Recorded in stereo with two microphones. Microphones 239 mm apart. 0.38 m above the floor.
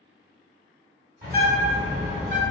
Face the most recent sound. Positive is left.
turn(degrees=-40)  # may be behind; listen again after turning